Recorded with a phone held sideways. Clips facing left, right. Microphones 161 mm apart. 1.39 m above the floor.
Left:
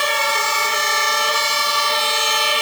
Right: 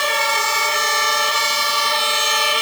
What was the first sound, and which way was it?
Only background noise.